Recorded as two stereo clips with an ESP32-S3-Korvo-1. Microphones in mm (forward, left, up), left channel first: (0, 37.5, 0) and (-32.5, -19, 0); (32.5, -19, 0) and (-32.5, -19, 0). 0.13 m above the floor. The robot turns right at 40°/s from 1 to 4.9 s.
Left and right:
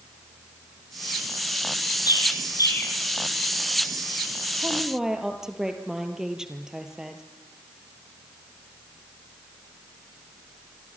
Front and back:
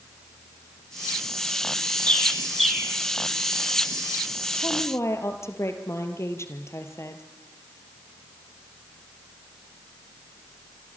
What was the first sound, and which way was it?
A bird, 70° left.